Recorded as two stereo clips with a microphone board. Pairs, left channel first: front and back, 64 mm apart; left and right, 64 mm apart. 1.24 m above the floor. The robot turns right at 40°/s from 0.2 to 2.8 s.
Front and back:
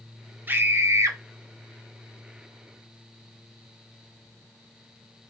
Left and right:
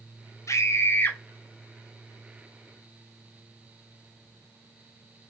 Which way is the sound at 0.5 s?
120° left.